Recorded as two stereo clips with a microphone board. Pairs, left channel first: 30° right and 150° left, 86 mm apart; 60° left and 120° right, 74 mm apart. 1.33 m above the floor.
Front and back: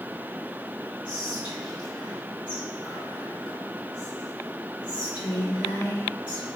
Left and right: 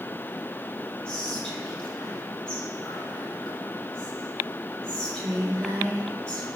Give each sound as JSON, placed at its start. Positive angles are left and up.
{"t": 1.1, "sound": "whispering", "azimuth_deg": -15, "distance_m": 3.0}